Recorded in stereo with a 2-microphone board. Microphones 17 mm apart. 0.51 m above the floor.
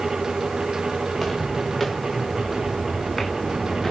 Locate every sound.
1.1 s footsteps: 15° left (ahead or behind), 4 m; by 3.9 s 20° left (ahead or behind), 2.5 m